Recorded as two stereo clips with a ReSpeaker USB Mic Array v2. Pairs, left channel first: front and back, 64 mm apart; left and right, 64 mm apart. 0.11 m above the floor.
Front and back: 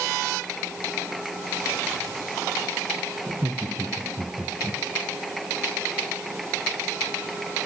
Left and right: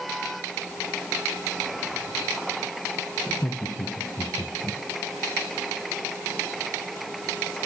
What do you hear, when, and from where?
3.3 s laughter: 135° left, 3 m; by 4.8 s 100° left, 3.5 m